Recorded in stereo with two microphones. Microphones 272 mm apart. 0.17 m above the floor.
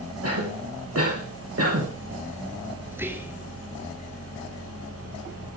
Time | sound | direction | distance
0.2 | a cough | 55° right (ahead or behind) | 4.5 m
2.9 | whispering | 10° right (ahead or behind) | 2.5 m